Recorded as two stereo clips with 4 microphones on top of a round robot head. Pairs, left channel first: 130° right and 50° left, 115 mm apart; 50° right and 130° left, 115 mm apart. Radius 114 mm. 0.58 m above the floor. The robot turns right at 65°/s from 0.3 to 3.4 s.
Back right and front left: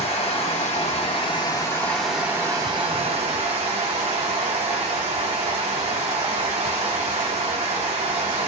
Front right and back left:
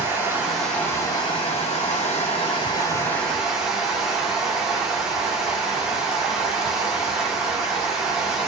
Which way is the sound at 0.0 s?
155° right.